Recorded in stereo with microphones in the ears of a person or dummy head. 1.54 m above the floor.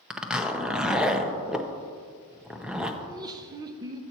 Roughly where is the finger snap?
No finger snap in this recording.